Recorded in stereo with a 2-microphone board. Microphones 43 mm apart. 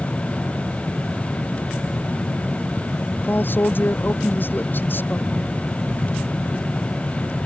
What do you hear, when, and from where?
3.2 s a man speaking: 55° left (ahead or behind)